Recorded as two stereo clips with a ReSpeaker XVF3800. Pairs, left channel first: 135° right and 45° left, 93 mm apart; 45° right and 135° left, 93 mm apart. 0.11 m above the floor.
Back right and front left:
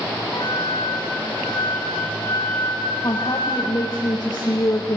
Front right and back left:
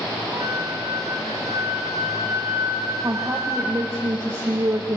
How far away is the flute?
About 3.5 m.